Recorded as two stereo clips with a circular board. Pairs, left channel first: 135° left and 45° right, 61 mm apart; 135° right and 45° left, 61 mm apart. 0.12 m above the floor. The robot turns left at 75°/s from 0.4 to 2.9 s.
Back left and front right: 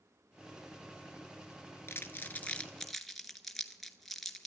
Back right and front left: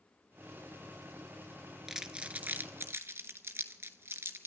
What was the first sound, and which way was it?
Crumpling, 125° left.